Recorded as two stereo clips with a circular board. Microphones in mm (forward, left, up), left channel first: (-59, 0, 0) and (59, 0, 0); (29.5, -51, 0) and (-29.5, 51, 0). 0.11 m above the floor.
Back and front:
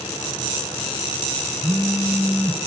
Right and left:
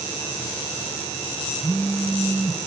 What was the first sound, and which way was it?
A phone buzzing, straight ahead.